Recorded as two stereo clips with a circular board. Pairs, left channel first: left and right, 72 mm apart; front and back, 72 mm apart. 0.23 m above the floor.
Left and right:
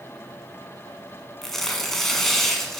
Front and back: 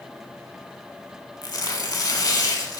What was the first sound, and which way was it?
Tearing paper, 5° left.